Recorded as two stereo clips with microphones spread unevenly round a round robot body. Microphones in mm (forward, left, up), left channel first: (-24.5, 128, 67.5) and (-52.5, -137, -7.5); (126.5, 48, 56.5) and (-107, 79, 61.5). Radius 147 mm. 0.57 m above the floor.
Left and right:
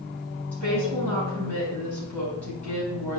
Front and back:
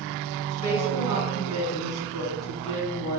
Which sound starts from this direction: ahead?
A woman speaking, at 0.5 s.